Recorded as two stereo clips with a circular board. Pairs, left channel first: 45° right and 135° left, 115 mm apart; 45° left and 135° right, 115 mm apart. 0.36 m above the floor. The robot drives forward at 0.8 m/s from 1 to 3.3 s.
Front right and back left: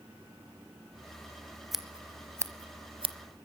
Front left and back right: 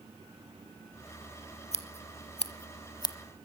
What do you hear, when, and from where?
1.7 s scissors: 45° left, 1.4 m; by 3.1 s 100° left, 1.0 m